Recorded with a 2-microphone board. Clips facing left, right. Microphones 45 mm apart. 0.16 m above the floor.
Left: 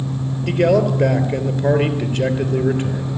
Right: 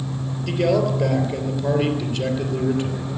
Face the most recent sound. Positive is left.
turn(degrees=45)  # may be behind; listen again after turning